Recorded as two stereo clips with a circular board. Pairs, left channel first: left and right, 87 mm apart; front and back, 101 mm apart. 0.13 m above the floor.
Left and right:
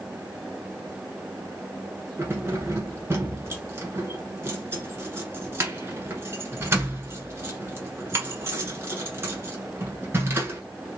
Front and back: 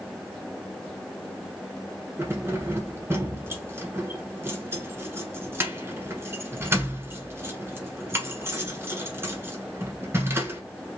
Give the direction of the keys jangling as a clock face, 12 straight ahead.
4 o'clock.